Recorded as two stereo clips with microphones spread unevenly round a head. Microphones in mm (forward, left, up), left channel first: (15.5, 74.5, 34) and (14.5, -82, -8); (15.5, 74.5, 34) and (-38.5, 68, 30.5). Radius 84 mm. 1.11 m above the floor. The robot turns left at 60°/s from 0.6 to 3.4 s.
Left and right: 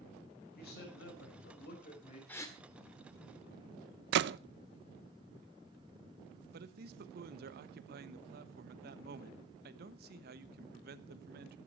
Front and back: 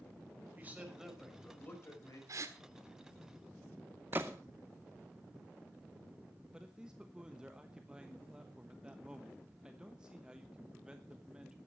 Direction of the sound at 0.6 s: 130° left.